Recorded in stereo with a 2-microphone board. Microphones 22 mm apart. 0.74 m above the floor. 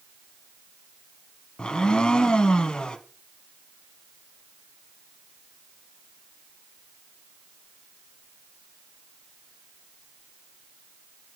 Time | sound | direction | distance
1.6 | a blender | 45° left (ahead or behind) | 0.8 m